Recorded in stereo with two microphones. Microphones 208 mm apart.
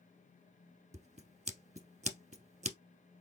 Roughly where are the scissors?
Right.